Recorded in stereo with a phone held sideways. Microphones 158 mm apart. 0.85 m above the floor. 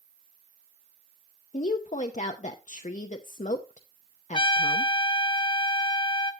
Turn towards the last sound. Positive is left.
turn(degrees=35)  # may be behind; listen again after turning